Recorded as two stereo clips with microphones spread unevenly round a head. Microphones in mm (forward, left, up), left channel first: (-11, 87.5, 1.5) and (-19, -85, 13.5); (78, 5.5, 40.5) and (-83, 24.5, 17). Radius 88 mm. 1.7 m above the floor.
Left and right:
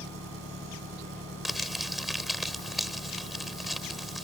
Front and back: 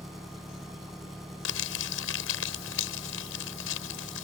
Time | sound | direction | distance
0.0 | an engine running | 95° right | ?
1.4 | crumpling | 5° right | ?